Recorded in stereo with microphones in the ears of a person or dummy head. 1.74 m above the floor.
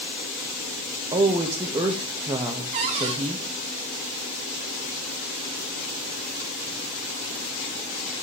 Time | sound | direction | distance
1.1 | a woman speaking | 25° right (ahead or behind) | 0.8 m
2.7 | a cupboard door | 25° right (ahead or behind) | 0.7 m